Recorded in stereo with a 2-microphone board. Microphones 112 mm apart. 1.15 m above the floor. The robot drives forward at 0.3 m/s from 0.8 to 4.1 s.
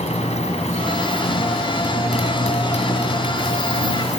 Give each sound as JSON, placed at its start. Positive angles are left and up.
{"t": 0.0, "sound": "a motorcycle", "side_deg": 80}